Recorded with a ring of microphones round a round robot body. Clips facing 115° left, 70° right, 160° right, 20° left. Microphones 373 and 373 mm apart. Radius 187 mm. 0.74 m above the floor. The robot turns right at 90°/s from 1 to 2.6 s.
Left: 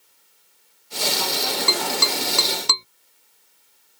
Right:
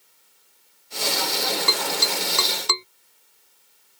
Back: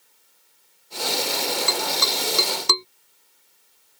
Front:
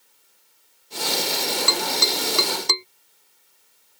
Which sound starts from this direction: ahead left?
Tapping, at 1.7 s.